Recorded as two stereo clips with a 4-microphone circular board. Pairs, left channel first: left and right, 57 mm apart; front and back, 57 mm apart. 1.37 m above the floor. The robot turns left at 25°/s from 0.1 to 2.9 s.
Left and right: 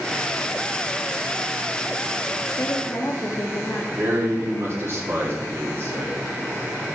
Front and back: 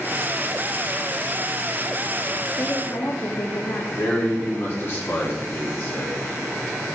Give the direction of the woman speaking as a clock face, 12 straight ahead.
10 o'clock.